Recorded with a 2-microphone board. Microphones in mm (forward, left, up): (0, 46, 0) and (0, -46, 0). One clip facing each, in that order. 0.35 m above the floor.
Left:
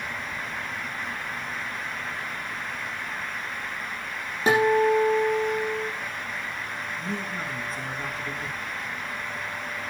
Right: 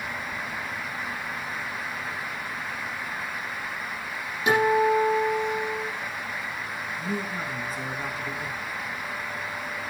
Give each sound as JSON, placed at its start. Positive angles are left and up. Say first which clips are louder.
{"t": 4.5, "sound": "a guitar", "louder": "left 1 dB", "side_deg": 35, "distance_m": 8.5}
{"t": 7.0, "sound": "a man speaking", "louder": "right 3 dB", "side_deg": -5, "distance_m": 5.0}